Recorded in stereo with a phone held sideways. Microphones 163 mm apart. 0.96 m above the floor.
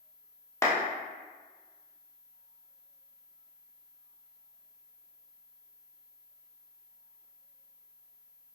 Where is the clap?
15° left (ahead or behind), 0.9 m.